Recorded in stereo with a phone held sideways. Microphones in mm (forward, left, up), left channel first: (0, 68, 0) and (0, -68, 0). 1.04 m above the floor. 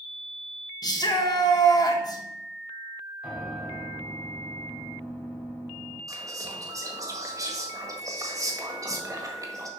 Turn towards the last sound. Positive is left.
turn(degrees=-25)  # may be behind; listen again after turning